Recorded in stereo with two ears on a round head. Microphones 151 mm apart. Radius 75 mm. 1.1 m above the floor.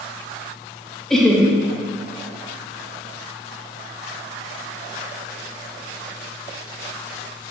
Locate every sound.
1.1 s laughter: 5° left (ahead or behind), 1.3 m